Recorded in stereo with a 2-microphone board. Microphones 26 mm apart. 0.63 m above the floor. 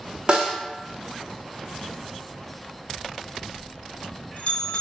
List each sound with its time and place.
0.3 s a snare drum: 40° right (ahead or behind), 0.7 m
3.0 s a bell: 60° left (ahead or behind), 0.6 m